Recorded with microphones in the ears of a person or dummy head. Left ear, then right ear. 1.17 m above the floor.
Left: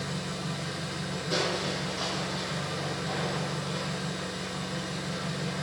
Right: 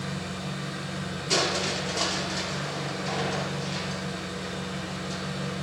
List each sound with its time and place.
0.0 s an engine running: 5° left (ahead or behind), 4 m
1.3 s crushing: 75° right (ahead or behind), 3.5 m